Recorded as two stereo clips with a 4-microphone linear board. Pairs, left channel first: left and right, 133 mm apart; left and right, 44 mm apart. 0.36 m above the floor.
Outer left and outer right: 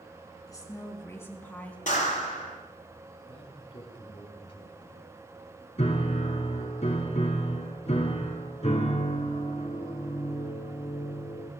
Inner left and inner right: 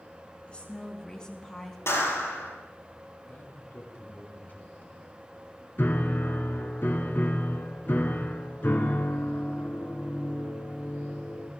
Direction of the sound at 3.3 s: 45° left (ahead or behind).